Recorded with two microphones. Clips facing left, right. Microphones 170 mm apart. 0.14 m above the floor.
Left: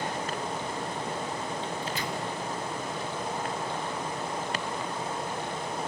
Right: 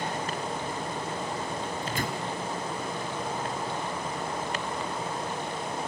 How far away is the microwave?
About 2 m.